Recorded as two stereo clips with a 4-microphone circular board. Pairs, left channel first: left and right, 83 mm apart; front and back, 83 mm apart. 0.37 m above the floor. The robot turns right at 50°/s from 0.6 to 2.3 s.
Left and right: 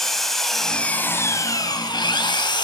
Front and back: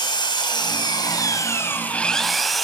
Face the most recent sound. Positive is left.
turn(degrees=90)